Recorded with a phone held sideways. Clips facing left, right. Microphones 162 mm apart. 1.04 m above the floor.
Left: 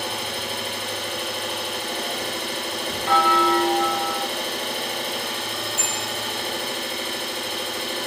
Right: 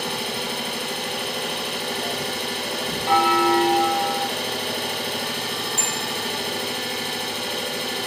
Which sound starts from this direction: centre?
A bell, at 3.1 s.